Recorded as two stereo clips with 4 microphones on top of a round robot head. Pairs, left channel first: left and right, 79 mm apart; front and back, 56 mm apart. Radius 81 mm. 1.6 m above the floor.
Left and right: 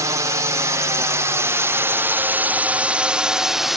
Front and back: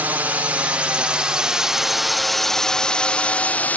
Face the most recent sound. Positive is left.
turn(degrees=-5)